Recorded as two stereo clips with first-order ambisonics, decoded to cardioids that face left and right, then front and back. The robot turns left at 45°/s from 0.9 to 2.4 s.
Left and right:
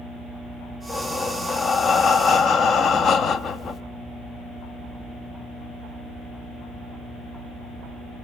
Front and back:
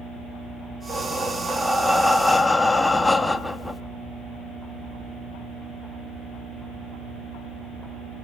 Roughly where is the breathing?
Behind left.